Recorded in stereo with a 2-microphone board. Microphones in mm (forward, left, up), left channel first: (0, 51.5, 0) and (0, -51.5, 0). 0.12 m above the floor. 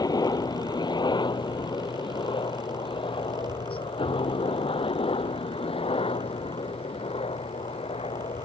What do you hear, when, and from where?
0.0 s a helicopter: 40° left (ahead or behind); by 8.4 s 70° left (ahead or behind)